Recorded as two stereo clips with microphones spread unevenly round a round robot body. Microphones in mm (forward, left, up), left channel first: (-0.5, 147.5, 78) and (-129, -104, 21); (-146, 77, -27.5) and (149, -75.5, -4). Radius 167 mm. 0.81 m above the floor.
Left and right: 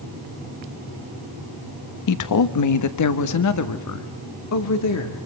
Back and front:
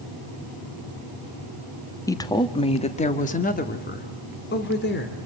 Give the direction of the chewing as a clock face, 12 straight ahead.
I don't hear chewing.